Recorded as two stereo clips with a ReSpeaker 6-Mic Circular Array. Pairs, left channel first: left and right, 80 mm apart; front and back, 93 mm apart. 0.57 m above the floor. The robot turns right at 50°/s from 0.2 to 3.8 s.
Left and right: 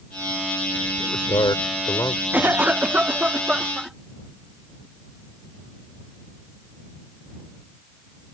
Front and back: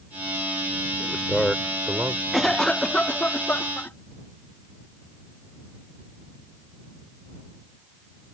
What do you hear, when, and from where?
1.0 s a man speaking: 70° left; by 2.2 s 130° left
2.3 s a cough: 90° right; by 4.0 s 15° right